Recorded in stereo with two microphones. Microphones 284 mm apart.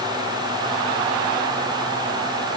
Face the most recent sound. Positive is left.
No sound to turn to.